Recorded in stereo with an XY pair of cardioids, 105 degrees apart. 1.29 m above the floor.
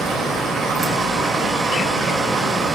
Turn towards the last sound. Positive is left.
turn(degrees=-50)